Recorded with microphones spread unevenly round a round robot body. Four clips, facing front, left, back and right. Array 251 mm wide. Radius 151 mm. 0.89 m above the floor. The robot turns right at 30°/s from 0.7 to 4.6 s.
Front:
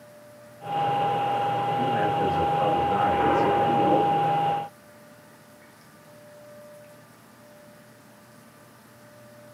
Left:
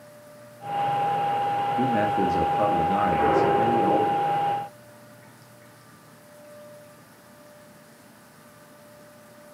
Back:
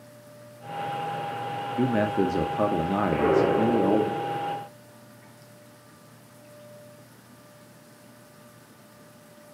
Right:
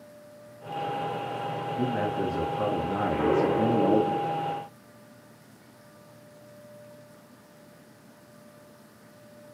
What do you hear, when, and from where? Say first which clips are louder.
1.8 s a man speaking: left 3 dB, back 4 dB; 160° left, 1.9 m; by 4.1 s 130° right, 1.9 m
3.1 s an explosion: left 1 dB, even; 160° right, 4 m; by 4.6 s 120° right, 4 m